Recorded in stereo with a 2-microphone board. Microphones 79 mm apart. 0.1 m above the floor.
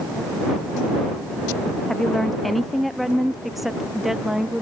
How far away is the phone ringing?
I don't hear a phone ringing.